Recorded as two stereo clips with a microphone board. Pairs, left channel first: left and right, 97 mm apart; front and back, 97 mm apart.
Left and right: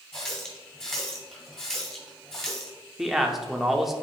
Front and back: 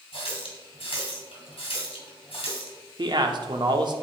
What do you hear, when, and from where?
0.1 s a running tap: 10° left, 2.5 m
3.0 s a man speaking: 175° right, 0.9 m